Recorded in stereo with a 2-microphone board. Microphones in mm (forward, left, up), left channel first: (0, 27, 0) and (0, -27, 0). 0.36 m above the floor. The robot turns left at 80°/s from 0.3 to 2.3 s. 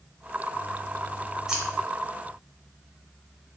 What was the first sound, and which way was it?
Scissors, 10° right (ahead or behind).